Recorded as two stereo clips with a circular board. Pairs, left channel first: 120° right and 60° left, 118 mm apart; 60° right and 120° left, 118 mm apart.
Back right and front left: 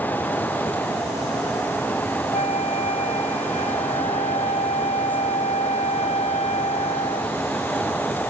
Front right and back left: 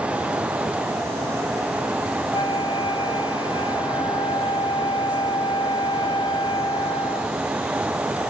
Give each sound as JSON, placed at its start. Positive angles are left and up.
{"t": 2.3, "sound": "a flute", "azimuth_deg": -105}